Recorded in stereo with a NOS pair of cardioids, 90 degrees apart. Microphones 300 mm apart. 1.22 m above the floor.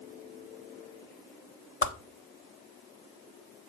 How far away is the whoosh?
About 1.1 m.